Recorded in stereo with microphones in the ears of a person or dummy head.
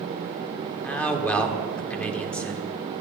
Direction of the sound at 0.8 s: 10° left (ahead or behind).